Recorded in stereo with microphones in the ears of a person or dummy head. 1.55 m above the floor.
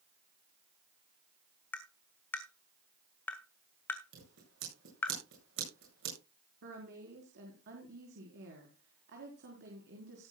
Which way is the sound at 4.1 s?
60° right (ahead or behind).